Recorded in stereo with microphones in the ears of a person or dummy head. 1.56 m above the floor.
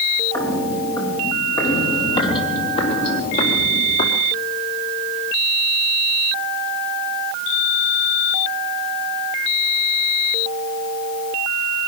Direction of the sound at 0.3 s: 15° left (ahead or behind).